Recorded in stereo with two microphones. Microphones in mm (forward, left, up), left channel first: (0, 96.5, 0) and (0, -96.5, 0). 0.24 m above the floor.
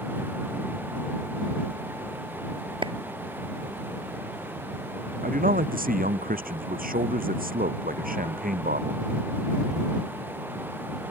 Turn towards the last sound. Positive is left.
turn(degrees=-45)  # may be behind; listen again after turning